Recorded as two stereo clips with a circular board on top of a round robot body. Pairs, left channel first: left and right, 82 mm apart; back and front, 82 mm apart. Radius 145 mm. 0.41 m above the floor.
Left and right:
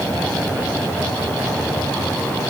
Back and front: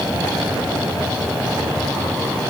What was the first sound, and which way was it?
Only background noise.